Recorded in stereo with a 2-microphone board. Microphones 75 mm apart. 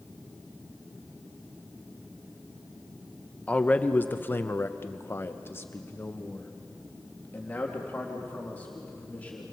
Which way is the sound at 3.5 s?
15° left (ahead or behind).